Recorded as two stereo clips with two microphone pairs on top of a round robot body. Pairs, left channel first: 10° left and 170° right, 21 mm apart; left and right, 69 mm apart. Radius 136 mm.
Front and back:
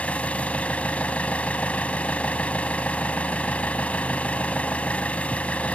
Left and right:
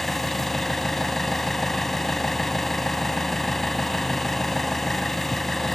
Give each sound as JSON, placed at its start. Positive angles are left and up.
{"t": 0.0, "sound": "an engine running", "azimuth_deg": 0}